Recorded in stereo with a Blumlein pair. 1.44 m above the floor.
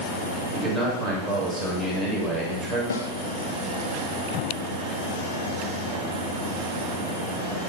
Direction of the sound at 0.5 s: 5° right.